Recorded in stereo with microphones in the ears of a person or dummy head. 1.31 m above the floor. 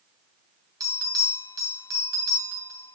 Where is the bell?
20° right (ahead or behind), 2.5 m.